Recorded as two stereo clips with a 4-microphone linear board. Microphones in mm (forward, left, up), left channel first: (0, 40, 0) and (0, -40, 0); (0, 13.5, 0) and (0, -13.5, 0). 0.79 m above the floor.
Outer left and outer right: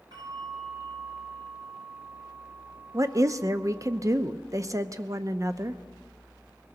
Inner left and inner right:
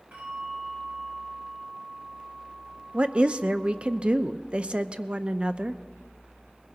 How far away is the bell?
About 9.5 m.